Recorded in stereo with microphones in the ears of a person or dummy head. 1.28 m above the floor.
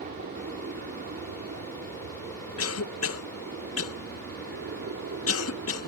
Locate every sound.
0.0 s an aircraft: 50° right (ahead or behind); by 5.9 s 65° right (ahead or behind)
2.6 s a cough: 70° left (ahead or behind)